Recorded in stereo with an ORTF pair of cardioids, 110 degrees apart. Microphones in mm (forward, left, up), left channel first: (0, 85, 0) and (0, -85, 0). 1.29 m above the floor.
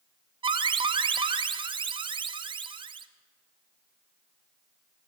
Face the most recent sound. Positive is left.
turn(degrees=-30)